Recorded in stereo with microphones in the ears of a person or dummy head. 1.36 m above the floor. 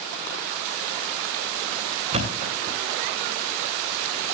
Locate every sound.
2.1 s a thud: 35° right (ahead or behind), 2.5 m